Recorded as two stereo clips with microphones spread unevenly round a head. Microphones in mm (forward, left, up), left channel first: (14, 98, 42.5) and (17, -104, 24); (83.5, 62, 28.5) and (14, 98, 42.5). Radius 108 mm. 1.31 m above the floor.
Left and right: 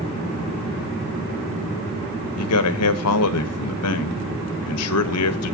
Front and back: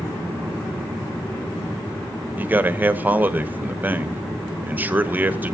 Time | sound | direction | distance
2.4 | a man speaking | 85° left | 1.0 m